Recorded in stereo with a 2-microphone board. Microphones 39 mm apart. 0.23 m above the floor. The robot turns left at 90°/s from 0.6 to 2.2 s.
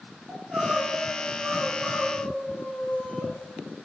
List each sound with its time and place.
0.3 s crying: 105° right, 1.7 m; by 3.3 s 110° left, 1.7 m